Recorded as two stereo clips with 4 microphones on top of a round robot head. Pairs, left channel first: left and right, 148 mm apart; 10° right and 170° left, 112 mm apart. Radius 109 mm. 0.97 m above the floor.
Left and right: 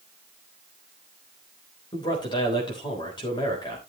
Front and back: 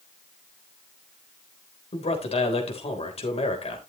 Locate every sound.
1.9 s a man speaking: 25° left, 3.5 m